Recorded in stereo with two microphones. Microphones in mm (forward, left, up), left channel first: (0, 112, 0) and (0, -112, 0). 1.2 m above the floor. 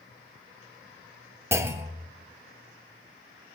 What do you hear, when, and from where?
1.5 s a clunk: 10° right (ahead or behind), 0.8 m